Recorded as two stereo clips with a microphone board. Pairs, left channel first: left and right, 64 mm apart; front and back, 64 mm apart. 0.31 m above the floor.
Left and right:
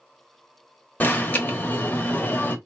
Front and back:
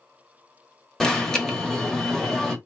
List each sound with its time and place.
1.0 s an alarm: 75° left, 1.1 m